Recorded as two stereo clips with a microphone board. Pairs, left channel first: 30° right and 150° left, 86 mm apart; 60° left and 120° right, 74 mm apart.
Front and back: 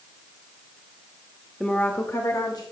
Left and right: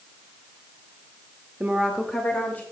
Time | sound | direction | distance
1.6 | a woman speaking | 110° right | 0.9 m